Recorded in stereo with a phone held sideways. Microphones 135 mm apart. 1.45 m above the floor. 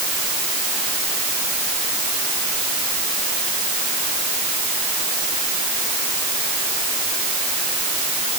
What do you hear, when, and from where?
Only background noise.